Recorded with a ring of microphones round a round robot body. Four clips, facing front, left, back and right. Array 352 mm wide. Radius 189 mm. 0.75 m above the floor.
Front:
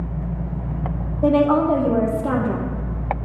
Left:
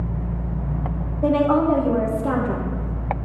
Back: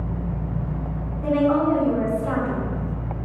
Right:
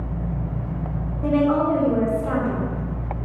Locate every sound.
1.2 s a woman speaking: 30° left, 2 m